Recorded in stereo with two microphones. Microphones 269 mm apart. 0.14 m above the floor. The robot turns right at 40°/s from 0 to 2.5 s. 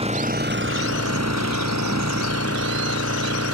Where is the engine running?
160° right; by 3.5 s 60° right.